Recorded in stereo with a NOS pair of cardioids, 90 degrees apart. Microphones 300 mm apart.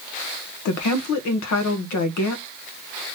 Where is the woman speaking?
70° left, 1.1 m.